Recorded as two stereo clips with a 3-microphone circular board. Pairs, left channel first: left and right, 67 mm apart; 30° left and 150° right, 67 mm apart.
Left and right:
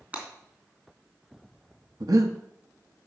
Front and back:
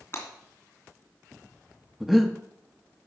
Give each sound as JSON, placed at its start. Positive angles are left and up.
{"t": 0.1, "sound": "breaking glass", "azimuth_deg": -25, "distance_m": 3.0}
{"t": 2.0, "sound": "breathing", "azimuth_deg": -65, "distance_m": 1.0}